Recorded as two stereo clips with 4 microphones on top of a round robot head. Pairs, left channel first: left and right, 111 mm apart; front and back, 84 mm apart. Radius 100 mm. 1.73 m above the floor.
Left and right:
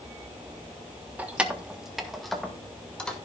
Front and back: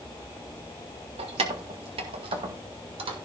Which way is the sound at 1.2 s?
165° right.